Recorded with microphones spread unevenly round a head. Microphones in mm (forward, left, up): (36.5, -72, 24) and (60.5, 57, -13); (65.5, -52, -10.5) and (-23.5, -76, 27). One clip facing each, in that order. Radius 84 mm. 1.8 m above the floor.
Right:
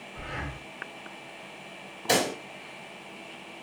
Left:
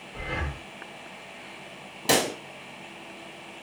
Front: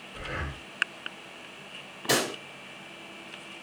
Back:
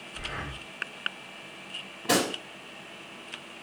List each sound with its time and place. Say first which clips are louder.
0.1 s breathing: left 4 dB, front 2 dB; 55° left, 0.8 m
2.1 s a pop: left 1 dB, back 2 dB; 90° left, 1.2 m